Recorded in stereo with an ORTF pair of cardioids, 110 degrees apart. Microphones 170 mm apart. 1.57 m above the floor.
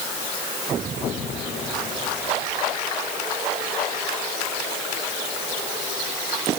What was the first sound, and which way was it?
Only background noise.